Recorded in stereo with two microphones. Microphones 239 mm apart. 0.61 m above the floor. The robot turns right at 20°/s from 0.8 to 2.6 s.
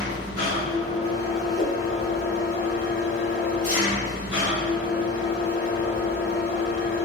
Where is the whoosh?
60° left (ahead or behind), 1.5 m; by 1.8 s 65° left (ahead or behind), 1.5 m.